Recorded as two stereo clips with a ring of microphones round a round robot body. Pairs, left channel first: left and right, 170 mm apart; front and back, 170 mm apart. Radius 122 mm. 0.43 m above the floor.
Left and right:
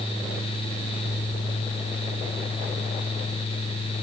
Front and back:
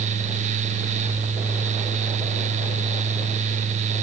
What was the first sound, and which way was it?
Only background noise.